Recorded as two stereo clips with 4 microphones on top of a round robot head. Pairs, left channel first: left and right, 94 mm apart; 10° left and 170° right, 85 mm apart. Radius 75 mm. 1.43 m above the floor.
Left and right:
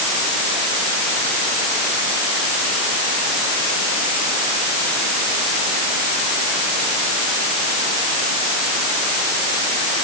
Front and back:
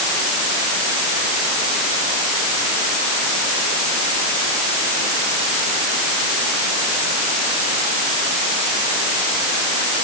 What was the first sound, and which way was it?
Only background noise.